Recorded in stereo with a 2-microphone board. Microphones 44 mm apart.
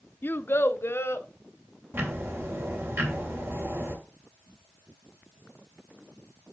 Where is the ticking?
60° right (ahead or behind), 2.5 m.